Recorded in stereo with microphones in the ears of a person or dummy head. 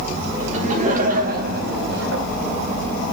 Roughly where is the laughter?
Right.